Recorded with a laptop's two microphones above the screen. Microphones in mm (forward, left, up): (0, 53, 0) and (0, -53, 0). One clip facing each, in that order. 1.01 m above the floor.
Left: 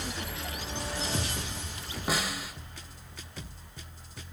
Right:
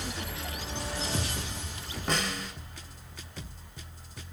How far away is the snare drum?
About 4 m.